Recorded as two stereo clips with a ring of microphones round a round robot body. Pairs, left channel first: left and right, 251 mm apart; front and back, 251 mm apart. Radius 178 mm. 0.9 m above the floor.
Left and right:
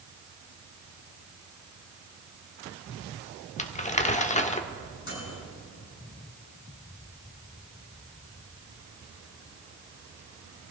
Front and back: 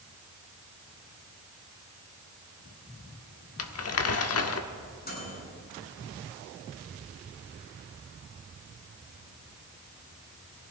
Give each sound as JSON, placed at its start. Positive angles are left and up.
{"t": 3.6, "sound": "crumpling", "azimuth_deg": 25, "distance_m": 1.2}
{"t": 5.0, "sound": "a microwave", "azimuth_deg": 50, "distance_m": 8.0}